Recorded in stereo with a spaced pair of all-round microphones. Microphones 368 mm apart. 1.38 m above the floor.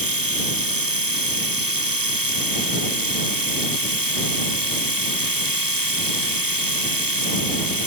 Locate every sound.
0.0 s a machine running: 65° right (ahead or behind)